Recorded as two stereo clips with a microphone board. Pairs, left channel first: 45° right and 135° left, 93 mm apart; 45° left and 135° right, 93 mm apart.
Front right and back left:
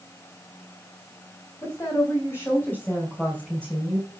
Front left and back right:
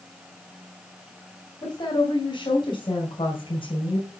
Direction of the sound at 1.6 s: 10° left.